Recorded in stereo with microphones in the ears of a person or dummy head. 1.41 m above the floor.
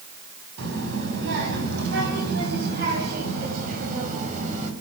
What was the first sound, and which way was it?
A child speaking, 70° right (ahead or behind).